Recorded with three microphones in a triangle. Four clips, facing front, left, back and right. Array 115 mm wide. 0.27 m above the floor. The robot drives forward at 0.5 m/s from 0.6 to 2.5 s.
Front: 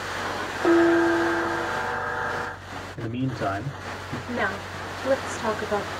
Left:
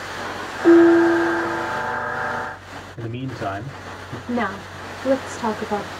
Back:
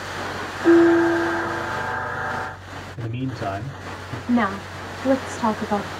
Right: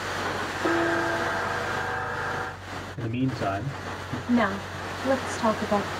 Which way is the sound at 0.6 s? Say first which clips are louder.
Left 14 dB, back 4 dB; 35° left.